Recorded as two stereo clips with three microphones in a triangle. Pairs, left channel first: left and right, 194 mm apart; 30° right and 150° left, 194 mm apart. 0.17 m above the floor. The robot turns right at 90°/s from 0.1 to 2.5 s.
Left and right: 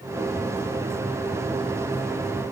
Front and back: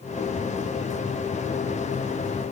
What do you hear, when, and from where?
Only background noise.